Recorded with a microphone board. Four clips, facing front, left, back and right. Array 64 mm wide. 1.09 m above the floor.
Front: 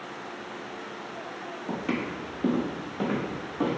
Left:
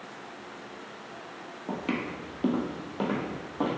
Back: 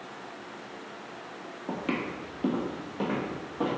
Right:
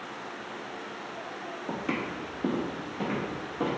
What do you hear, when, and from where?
1.7 s footsteps: 125° left, 1.1 m; by 3.8 s 90° left, 1.9 m